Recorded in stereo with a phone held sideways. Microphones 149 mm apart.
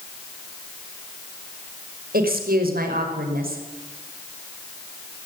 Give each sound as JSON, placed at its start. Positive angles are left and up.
{"t": 2.1, "sound": "a woman speaking", "side_deg": -85, "distance_m": 5.0}